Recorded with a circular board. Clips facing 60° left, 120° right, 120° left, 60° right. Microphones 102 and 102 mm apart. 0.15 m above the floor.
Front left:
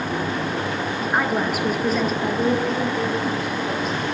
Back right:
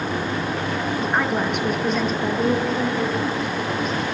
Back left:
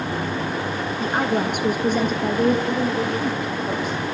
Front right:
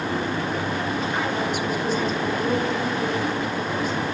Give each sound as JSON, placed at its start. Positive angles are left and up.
{"t": 1.0, "sound": "a woman speaking", "azimuth_deg": 145, "distance_m": 2.5}